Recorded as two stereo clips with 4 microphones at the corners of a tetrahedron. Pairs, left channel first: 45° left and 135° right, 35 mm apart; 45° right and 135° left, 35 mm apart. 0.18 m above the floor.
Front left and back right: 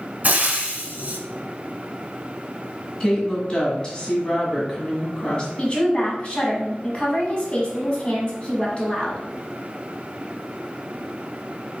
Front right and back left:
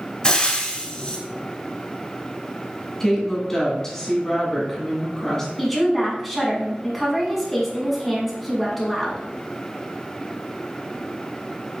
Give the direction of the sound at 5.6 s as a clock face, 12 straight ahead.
11 o'clock.